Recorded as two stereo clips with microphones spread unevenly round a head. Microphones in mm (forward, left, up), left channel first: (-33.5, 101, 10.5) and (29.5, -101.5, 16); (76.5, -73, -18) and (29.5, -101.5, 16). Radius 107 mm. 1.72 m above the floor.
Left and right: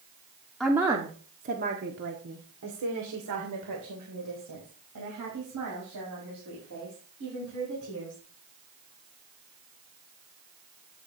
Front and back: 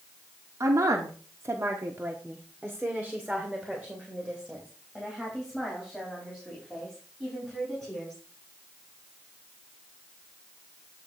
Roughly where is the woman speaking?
Behind.